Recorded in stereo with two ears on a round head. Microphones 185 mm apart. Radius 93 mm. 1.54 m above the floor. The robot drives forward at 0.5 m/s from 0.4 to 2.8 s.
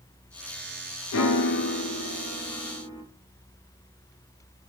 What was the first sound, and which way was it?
A piano, 70° left (ahead or behind).